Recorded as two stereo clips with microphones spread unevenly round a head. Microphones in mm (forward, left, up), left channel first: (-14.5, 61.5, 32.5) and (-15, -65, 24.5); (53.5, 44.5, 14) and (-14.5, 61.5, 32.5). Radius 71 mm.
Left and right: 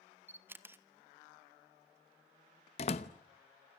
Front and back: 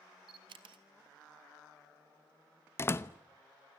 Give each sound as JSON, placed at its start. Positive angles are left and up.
{"t": 0.3, "sound": "a camera shutter", "azimuth_deg": -165, "distance_m": 1.3}
{"t": 2.8, "sound": "a door slam", "azimuth_deg": 45, "distance_m": 0.9}